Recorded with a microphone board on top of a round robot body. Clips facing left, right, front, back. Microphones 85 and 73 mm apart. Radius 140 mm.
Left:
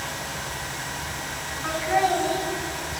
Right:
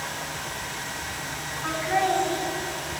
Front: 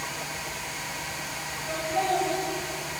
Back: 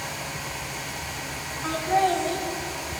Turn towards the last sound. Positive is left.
turn(degrees=155)